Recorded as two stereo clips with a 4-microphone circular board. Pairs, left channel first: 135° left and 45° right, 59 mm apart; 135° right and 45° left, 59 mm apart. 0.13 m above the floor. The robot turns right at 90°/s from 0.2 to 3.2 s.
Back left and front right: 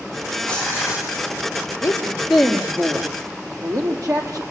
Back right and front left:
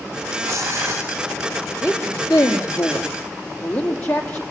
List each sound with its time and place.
0.4 s tearing paper: 55° left, 7 m; by 1.1 s 110° left, 7 m
1.8 s a woman speaking: 170° left, 5 m; by 4.4 s 65° right, 5 m